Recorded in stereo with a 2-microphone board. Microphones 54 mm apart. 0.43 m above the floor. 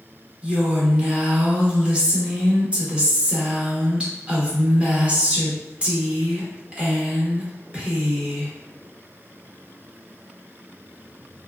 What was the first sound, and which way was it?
A woman speaking, 20° right (ahead or behind).